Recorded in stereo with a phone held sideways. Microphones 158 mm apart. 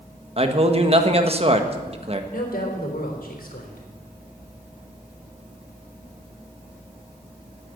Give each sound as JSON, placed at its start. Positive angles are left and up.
{"t": 0.4, "sound": "a man speaking", "side_deg": -40, "distance_m": 1.3}
{"t": 2.3, "sound": "a woman speaking", "side_deg": 65, "distance_m": 3.5}